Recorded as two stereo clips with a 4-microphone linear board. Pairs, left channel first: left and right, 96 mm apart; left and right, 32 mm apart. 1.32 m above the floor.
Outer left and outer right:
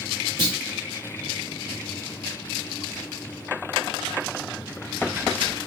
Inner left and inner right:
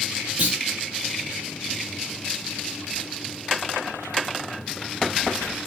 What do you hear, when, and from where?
0.4 s a clunk: 50° right (ahead or behind), 2 m